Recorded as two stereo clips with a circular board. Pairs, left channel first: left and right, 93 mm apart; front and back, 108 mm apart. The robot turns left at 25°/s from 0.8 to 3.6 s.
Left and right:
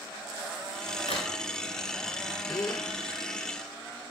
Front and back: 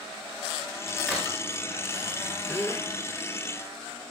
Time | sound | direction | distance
1.1 | a crack | 85° left | 9.5 m
2.5 | a gasp | 65° left | 1.3 m